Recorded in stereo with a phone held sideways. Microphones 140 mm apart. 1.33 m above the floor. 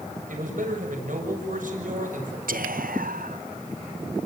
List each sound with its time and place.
0.3 s a man speaking: 70° right (ahead or behind), 6.5 m
2.5 s whispering: 85° right, 1.2 m